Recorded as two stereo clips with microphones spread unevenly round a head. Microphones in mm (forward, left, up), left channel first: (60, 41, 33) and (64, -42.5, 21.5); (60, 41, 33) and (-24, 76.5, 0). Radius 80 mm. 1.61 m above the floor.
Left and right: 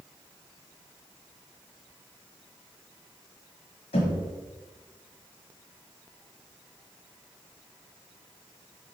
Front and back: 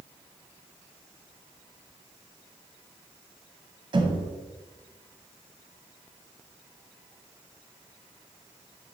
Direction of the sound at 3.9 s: 110° left.